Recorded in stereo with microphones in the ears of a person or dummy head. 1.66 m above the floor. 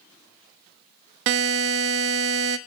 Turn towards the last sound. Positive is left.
turn(degrees=-65)  # may be behind; listen again after turning